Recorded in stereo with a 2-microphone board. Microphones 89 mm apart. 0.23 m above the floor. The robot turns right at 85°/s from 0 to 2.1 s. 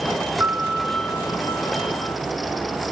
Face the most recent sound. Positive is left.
turn(degrees=115)